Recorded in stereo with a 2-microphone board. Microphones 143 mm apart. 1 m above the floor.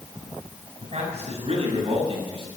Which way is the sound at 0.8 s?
55° right (ahead or behind).